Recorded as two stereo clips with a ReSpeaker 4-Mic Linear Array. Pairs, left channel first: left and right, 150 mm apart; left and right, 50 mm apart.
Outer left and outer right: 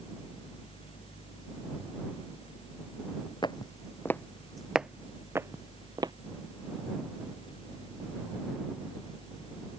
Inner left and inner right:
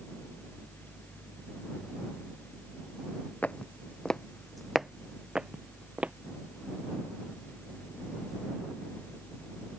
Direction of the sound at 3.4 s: 30° left (ahead or behind).